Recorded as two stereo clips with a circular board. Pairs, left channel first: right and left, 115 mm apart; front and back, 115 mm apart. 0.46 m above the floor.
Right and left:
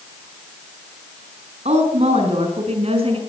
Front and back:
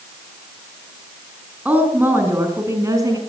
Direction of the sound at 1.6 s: 105° left.